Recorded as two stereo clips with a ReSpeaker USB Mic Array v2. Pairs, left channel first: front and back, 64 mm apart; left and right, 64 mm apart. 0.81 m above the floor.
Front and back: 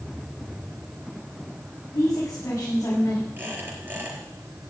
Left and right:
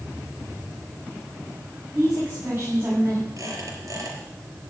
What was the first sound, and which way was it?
A woman speaking, 30° right.